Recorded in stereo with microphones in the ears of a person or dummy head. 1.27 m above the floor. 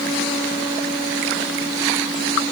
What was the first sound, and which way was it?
Only background noise.